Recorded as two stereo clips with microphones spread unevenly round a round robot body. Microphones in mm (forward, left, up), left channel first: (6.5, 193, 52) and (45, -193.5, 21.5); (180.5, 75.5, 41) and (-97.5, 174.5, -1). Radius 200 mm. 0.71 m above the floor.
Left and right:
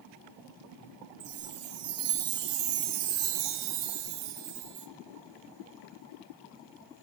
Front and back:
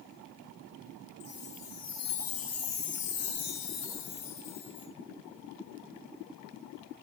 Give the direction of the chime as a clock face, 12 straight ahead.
2 o'clock.